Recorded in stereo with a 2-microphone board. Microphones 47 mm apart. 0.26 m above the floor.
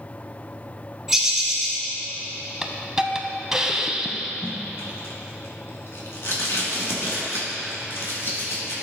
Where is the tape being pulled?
65° left (ahead or behind), 2.5 m.